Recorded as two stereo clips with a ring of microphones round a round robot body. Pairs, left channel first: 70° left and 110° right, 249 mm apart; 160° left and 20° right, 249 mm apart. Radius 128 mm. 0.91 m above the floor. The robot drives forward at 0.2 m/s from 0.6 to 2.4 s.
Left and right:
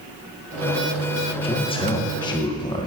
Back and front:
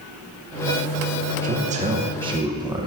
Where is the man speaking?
10° left, 0.7 m; by 2.9 s 25° left, 0.6 m.